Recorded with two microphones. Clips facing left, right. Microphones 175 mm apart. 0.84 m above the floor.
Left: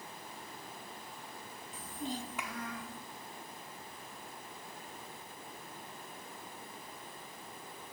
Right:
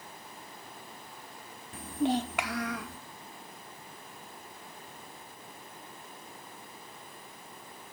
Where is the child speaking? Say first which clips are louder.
Right 12 dB; 60° right (ahead or behind), 0.8 m; by 3.0 s 85° right, 1.4 m.